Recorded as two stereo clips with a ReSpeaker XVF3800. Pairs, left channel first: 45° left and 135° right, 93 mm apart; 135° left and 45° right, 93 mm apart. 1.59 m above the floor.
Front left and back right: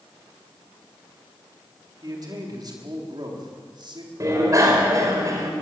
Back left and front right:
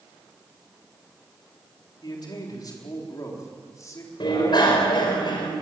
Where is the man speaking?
Straight behind, 4.5 m; by 4.1 s 170° right, 4.5 m.